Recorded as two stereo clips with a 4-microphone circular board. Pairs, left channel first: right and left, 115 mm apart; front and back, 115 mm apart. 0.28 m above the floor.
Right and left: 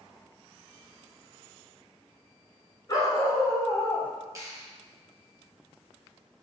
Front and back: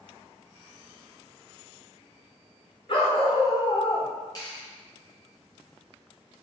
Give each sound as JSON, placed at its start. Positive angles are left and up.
{"t": 2.9, "sound": "a dog barking", "azimuth_deg": -35, "distance_m": 1.2}
{"t": 4.3, "sound": "a clap", "azimuth_deg": 40, "distance_m": 1.4}